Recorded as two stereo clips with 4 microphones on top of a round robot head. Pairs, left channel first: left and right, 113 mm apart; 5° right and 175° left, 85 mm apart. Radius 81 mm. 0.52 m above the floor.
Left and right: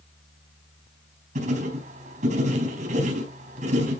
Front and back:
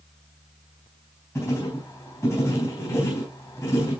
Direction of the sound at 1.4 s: 65° right.